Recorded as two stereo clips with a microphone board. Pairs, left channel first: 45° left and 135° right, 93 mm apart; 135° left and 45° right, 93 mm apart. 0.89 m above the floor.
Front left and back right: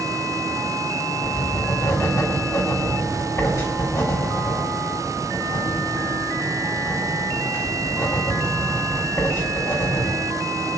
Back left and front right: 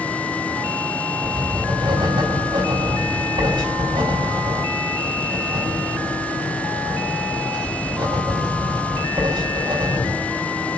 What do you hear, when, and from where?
1.2 s writing: 10° right, 5 m